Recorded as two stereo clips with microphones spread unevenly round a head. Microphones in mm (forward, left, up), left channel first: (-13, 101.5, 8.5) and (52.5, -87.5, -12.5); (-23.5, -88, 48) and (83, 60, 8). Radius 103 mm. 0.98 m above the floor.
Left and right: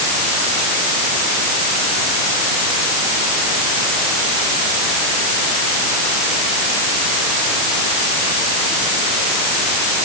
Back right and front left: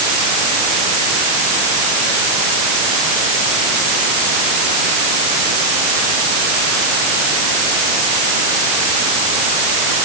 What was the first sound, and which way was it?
Only background noise.